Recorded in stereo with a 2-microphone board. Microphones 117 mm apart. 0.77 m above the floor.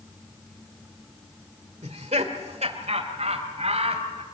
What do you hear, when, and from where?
1.8 s laughter: 70° right (ahead or behind), 2.0 m; by 4.2 s 65° right (ahead or behind), 4 m